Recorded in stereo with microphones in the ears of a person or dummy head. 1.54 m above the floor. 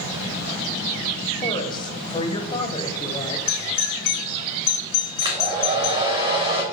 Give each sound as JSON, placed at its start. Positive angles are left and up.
{"t": 1.4, "sound": "a woman speaking", "side_deg": 25, "distance_m": 1.4}
{"t": 3.5, "sound": "a doorbell", "side_deg": 65, "distance_m": 3.0}
{"t": 5.2, "sound": "a hair dryer", "side_deg": -25, "distance_m": 3.5}